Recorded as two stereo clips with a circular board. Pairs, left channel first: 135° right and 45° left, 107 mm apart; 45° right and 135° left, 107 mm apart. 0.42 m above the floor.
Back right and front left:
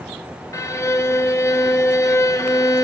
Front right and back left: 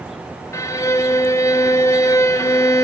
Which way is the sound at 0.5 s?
90° right.